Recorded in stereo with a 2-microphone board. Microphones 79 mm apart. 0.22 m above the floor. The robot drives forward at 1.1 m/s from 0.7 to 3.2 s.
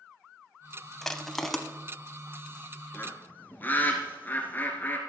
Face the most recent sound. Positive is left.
turn(degrees=25)  # may be behind; listen again after turning